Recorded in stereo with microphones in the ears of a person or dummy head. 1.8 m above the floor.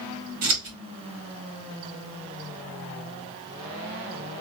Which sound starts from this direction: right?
Scissors, at 0.4 s.